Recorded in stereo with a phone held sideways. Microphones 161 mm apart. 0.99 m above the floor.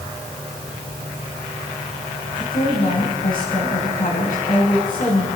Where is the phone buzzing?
I don't hear a phone buzzing.